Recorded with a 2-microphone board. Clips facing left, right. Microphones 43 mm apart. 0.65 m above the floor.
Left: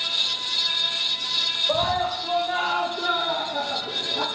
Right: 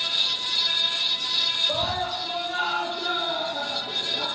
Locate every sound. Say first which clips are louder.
1.7 s a scream: left 4 dB; 35° left (ahead or behind), 3 m; by 4.3 s 45° left (ahead or behind), 1.3 m